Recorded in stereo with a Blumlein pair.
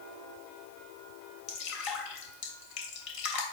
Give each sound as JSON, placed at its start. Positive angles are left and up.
{"t": 1.5, "sound": "dripping", "azimuth_deg": 45, "distance_m": 3.0}